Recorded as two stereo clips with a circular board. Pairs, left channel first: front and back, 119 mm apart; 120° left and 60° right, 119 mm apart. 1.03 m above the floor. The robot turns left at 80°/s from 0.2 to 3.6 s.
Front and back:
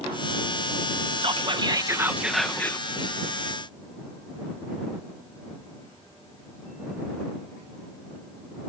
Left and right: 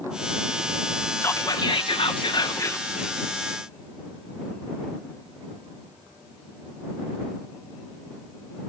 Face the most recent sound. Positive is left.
turn(degrees=-5)